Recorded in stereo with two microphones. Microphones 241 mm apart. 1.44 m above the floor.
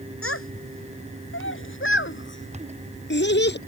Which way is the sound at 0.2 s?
60° left (ahead or behind).